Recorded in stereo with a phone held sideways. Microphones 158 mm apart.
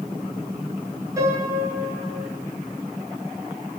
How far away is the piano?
About 9 m.